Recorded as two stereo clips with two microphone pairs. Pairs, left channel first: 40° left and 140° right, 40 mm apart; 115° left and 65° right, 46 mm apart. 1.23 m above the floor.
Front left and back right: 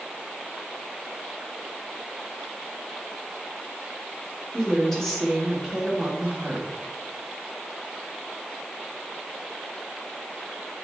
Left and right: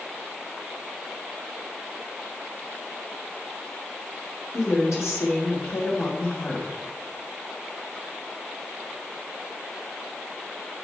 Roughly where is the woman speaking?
Behind left.